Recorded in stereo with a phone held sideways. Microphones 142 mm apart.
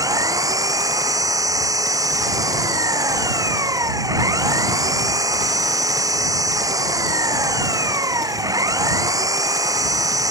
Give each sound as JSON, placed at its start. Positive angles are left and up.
{"t": 0.0, "sound": "an engine running", "side_deg": -25}